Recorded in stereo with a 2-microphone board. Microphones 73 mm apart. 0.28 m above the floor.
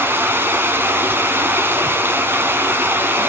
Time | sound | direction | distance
0.0 | running water | 30° right (ahead or behind) | 1.5 m